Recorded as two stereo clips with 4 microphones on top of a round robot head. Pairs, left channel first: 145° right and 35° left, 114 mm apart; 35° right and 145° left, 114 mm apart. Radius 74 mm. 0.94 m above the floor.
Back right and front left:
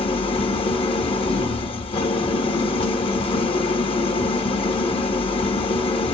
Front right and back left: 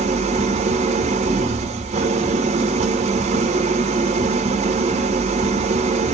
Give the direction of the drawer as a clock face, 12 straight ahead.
No drawer in this recording.